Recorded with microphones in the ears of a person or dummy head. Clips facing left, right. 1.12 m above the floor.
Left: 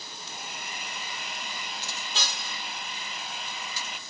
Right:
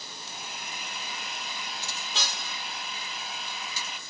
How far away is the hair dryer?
About 5 m.